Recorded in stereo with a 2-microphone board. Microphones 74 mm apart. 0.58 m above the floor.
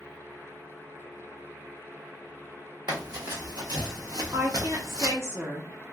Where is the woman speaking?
35° right (ahead or behind), 1.0 m.